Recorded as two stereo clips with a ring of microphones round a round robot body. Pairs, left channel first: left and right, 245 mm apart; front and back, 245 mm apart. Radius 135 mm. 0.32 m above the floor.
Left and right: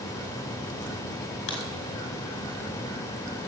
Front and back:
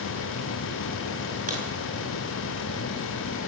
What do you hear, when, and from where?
1.5 s a crack: 120° left, 4.5 m